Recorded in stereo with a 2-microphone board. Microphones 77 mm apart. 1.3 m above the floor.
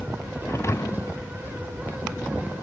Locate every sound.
0.5 s a thud: 35° left (ahead or behind)